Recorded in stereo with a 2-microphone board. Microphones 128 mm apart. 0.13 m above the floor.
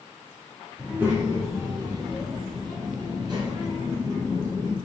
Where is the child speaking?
10° right (ahead or behind), 1.1 m; by 4.7 s 30° right (ahead or behind), 2.5 m.